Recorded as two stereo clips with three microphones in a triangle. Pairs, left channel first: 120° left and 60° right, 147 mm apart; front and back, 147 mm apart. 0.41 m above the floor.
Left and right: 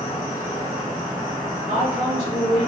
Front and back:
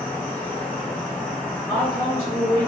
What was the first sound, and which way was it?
An insect, 70° left.